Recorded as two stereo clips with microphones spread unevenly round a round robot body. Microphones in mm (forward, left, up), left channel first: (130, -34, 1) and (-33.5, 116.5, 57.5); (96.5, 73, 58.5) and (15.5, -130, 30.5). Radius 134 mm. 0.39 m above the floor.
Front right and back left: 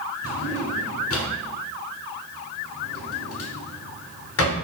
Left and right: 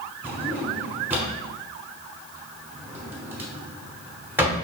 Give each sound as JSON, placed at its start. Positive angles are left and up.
{"t": 0.2, "sound": "a drawer", "azimuth_deg": -30, "distance_m": 1.1}